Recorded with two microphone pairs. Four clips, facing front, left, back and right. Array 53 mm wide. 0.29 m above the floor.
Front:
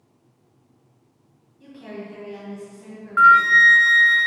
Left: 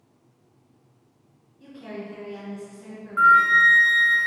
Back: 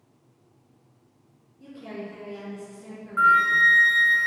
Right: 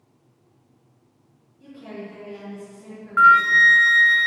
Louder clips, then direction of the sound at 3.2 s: Right 2 dB, front 6 dB; 45° right.